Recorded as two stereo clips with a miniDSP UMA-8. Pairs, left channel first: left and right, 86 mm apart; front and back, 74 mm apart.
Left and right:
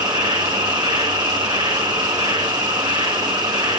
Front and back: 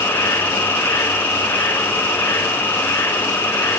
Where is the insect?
60° right, 1.0 m.